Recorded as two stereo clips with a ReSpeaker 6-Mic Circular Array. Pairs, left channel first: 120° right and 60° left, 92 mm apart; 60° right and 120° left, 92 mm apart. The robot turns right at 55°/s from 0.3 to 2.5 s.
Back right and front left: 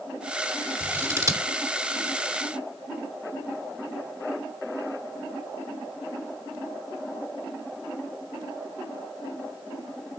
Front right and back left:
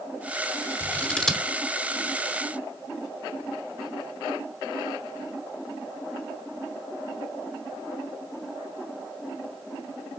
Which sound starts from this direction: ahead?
Scissors, at 0.8 s.